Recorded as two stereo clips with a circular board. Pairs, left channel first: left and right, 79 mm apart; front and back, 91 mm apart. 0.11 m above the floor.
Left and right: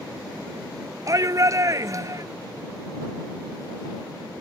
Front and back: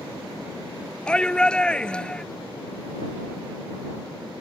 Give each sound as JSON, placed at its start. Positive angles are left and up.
{"t": 1.1, "sound": "a shout", "azimuth_deg": -75}